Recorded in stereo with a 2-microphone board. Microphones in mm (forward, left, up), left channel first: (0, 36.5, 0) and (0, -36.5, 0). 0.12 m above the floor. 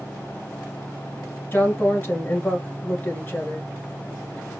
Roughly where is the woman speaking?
Left.